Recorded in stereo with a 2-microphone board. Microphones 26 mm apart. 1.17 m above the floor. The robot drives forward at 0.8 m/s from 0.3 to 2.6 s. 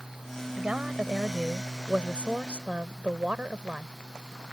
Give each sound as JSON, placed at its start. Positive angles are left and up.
{"t": 0.6, "sound": "a woman speaking", "side_deg": -55}